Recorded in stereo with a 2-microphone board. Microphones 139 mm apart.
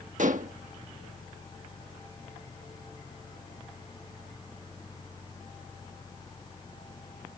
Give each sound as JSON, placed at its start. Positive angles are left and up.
{"t": 0.2, "sound": "dishes clattering", "side_deg": -65}